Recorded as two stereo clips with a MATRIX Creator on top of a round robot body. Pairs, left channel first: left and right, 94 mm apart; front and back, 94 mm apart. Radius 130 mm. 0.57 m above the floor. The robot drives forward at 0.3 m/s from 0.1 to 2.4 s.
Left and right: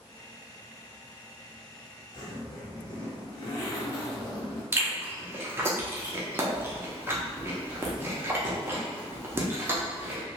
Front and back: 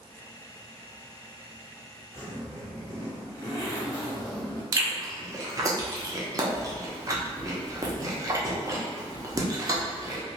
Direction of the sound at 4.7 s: 145° right.